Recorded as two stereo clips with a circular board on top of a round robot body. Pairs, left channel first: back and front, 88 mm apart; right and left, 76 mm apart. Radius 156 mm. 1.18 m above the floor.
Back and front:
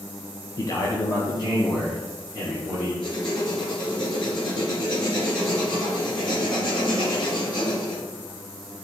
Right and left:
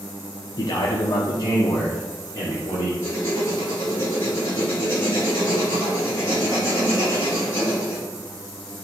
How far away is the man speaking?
About 0.7 m.